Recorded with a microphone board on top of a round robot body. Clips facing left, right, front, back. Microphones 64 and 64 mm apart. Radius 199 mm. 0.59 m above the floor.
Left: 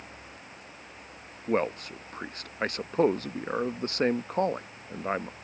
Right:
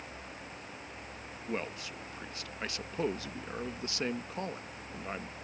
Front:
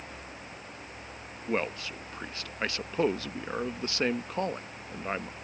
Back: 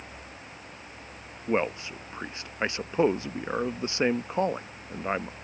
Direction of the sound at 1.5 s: 115° left.